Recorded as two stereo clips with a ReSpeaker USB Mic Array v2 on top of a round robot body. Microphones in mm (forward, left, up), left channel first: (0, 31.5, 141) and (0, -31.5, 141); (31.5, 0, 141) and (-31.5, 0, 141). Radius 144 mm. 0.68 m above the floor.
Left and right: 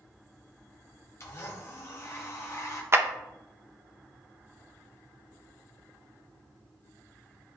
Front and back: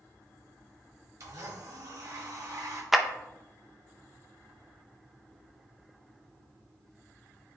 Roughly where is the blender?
Behind left.